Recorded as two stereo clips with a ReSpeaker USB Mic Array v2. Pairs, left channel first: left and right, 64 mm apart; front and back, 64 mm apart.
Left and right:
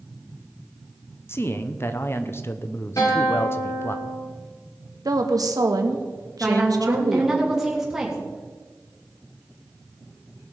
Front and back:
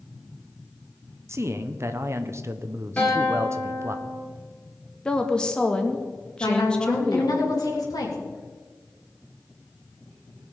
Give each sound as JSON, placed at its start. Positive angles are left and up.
{"t": 1.3, "sound": "a man speaking", "azimuth_deg": 140, "distance_m": 0.9}
{"t": 3.0, "sound": "a guitar", "azimuth_deg": 70, "distance_m": 5.0}
{"t": 5.0, "sound": "a woman speaking", "azimuth_deg": -75, "distance_m": 1.4}
{"t": 6.4, "sound": "a woman speaking", "azimuth_deg": -5, "distance_m": 3.0}